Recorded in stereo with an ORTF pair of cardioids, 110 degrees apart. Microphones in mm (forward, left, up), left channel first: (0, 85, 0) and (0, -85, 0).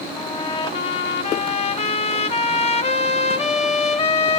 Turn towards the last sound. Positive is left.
turn(degrees=35)